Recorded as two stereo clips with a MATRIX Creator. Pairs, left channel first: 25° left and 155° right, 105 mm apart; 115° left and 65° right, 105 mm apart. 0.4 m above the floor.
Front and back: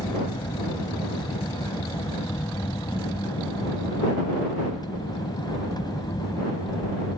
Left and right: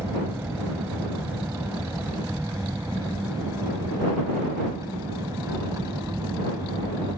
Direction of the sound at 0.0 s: 10° right.